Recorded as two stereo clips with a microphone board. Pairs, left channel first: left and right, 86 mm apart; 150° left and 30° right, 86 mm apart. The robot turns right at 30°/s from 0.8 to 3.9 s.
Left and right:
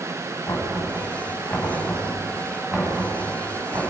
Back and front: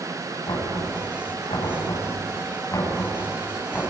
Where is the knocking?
135° left, 6 m; by 3.8 s 135° right, 6 m.